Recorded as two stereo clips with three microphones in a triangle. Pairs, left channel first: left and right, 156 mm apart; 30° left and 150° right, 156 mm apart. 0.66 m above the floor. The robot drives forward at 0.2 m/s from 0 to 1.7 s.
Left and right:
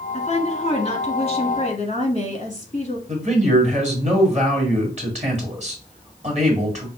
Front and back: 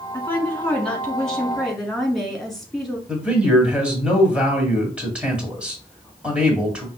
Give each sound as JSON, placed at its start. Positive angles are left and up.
{"t": 0.1, "sound": "a woman speaking", "azimuth_deg": 100, "distance_m": 1.4}
{"t": 3.1, "sound": "a man speaking", "azimuth_deg": -70, "distance_m": 1.6}